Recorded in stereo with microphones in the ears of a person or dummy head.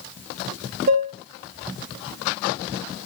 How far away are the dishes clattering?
About 0.6 m.